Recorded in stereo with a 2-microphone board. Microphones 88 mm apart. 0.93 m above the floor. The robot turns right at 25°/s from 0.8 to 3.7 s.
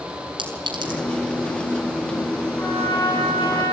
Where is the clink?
70° right (ahead or behind), 5 m; by 1.0 s 65° right (ahead or behind), 5 m.